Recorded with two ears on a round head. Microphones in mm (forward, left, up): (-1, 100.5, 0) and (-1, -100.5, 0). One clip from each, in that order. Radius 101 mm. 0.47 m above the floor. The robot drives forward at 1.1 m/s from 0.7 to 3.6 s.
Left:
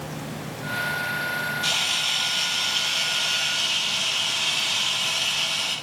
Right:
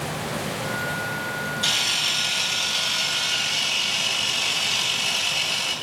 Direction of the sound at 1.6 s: 25° right (ahead or behind).